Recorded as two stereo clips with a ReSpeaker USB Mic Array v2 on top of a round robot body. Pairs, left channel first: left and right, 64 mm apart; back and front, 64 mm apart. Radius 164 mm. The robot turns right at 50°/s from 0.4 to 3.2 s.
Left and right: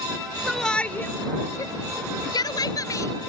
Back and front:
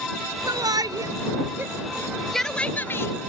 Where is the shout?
Straight ahead; by 3.1 s 135° left.